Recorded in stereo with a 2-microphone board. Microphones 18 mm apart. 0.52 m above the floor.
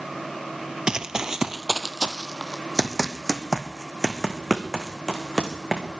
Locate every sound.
0.9 s running footsteps: 35° right (ahead or behind), 0.6 m; by 5.9 s 5° right (ahead or behind), 3 m